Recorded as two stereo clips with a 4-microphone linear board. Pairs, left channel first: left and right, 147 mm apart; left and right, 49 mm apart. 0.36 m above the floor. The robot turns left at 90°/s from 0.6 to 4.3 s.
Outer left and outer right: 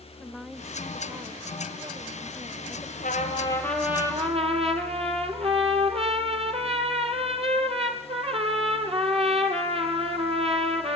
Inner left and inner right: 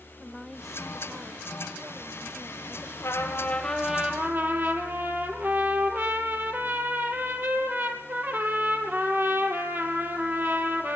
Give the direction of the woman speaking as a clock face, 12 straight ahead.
12 o'clock.